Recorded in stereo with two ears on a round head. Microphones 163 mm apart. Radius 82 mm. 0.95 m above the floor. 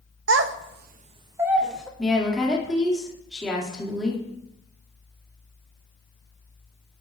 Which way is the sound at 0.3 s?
70° right (ahead or behind).